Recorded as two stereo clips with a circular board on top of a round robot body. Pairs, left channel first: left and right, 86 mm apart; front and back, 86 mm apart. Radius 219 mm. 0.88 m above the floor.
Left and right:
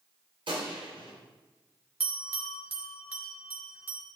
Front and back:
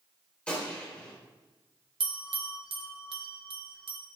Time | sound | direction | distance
0.5 | a gunshot | 80° right | 3.5 m
2.0 | a bell | 160° right | 1.1 m